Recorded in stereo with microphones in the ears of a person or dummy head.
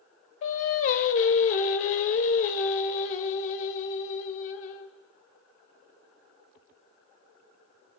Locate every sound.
0.4 s singing: 40° left (ahead or behind), 1.0 m